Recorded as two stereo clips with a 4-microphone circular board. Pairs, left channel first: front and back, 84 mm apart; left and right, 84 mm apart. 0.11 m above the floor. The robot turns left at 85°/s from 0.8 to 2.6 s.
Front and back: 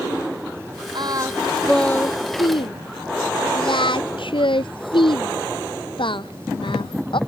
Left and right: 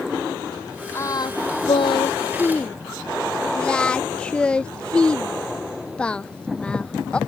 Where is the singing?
150° left; by 7.2 s 10° left.